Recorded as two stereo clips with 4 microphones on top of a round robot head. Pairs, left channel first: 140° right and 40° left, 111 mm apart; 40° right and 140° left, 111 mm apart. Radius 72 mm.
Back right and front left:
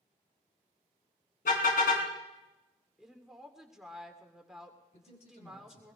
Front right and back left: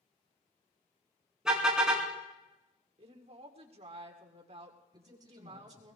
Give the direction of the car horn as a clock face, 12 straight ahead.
4 o'clock.